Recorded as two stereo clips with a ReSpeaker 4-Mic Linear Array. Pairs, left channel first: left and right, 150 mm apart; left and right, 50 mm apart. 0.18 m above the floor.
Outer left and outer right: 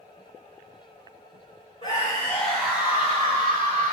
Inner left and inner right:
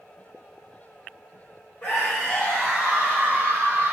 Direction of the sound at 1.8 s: 30° left (ahead or behind).